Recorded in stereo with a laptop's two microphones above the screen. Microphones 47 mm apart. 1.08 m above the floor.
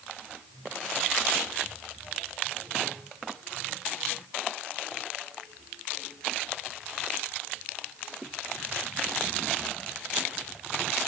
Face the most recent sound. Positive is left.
No sound to turn to.